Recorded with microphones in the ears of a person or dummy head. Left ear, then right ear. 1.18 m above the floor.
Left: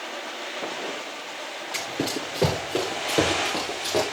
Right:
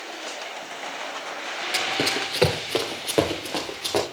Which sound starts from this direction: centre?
Running footsteps, at 1.7 s.